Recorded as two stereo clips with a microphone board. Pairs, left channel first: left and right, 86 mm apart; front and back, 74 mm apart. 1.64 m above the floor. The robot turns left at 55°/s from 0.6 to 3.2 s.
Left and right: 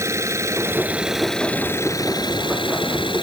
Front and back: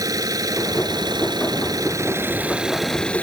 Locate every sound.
0.0 s an engine running: 145° right; by 3.2 s 70° left